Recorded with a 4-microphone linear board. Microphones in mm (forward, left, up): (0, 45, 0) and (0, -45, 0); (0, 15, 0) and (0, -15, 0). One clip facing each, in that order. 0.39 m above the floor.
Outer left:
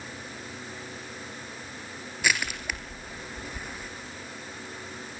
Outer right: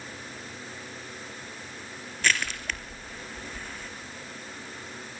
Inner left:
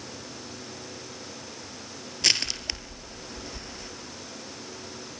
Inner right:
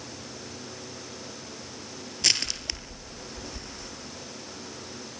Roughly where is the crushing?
Centre.